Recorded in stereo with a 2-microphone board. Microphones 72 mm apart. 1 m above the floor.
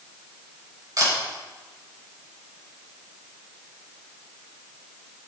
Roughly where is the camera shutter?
Right.